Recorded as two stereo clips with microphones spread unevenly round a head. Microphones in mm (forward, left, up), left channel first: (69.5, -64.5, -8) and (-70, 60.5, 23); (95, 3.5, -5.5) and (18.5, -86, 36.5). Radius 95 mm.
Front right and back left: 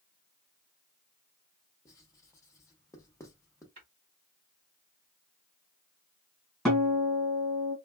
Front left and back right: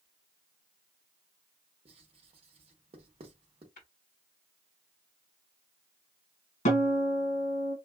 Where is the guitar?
45° left, 1.8 m.